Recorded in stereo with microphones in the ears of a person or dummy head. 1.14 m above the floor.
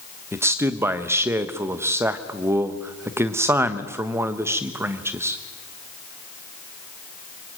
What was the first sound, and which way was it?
A man speaking, 20° right (ahead or behind).